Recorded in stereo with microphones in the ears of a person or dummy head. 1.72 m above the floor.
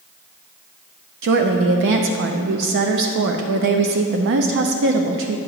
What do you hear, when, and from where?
1.2 s a woman speaking: 60° right (ahead or behind), 0.6 m